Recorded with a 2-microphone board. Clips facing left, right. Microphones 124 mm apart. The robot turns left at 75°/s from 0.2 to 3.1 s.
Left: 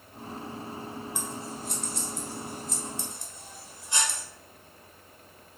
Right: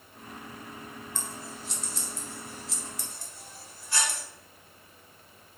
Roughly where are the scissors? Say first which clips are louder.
Left 4 dB; centre.